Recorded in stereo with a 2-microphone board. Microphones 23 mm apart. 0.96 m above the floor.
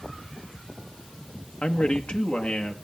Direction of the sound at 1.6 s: 50° left (ahead or behind).